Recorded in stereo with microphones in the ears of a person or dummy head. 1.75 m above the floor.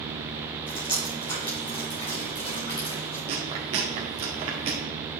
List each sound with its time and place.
0.7 s dripping: 25° left (ahead or behind), 3.5 m
3.3 s chewing: 35° right (ahead or behind), 1.8 m